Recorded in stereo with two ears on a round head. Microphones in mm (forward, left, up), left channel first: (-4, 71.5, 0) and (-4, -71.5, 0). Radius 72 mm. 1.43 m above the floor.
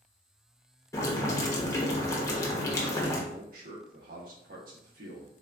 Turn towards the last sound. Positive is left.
turn(degrees=-55)  # may be behind; listen again after turning